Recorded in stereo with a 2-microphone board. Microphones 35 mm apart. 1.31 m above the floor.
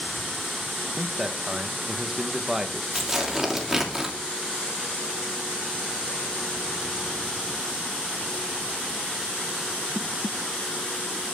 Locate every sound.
1.0 s a man speaking: 10° right (ahead or behind), 1.4 m
3.0 s tearing paper: 10° right (ahead or behind), 2.5 m